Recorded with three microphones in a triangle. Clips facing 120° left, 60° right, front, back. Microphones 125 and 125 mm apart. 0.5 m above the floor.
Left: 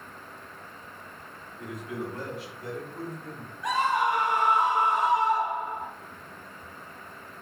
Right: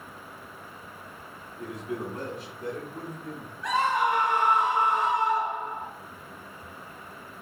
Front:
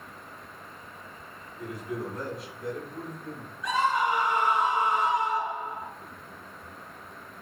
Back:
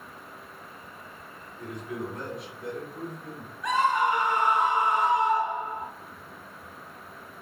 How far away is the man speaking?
About 0.8 m.